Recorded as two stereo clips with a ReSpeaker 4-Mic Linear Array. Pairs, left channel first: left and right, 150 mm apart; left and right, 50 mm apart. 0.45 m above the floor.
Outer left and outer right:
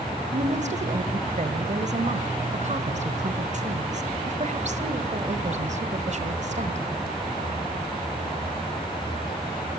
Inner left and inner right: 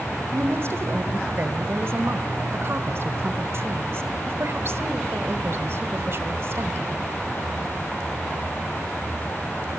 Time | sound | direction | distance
0.3 | a woman speaking | 50° right (ahead or behind) | 1.9 m